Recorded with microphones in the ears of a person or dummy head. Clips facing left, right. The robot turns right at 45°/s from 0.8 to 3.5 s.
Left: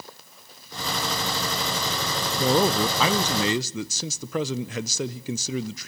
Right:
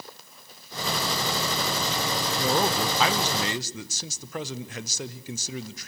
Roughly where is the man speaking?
Left.